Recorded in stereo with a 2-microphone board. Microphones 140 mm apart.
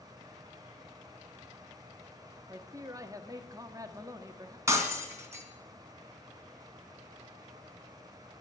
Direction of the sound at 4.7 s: 20° right (ahead or behind).